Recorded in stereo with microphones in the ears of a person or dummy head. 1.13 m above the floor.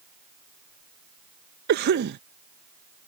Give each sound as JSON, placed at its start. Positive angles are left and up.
{"t": 1.7, "sound": "a cough", "side_deg": -50}